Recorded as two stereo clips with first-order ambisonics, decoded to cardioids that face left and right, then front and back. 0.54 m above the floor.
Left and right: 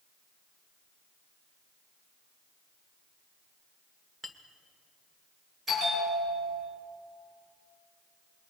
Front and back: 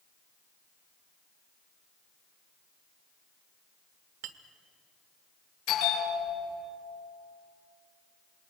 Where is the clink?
Straight behind, 1.2 m.